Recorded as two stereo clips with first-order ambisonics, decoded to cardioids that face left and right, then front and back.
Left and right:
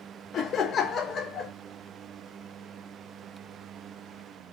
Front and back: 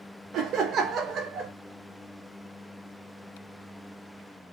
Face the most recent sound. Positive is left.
turn(degrees=140)